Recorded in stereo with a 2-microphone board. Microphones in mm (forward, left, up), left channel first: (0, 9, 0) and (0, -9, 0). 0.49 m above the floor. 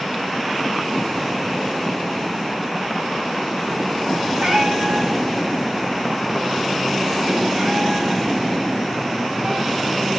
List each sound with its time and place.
4.4 s a cat meowing: 70° right (ahead or behind), 5.5 m; by 10.1 s 50° right (ahead or behind), 7.5 m